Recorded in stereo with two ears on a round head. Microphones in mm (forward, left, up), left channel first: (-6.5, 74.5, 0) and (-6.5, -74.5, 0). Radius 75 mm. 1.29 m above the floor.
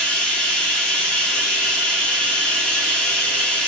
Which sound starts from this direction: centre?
Running water, at 0.0 s.